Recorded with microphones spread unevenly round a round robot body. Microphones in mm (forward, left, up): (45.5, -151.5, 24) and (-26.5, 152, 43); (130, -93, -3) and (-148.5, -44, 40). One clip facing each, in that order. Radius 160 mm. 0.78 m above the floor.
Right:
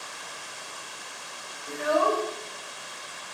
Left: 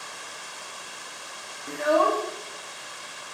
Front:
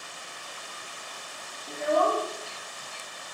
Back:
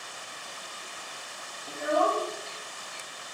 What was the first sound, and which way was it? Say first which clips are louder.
A child speaking: left 2 dB, front 2 dB; 80° left.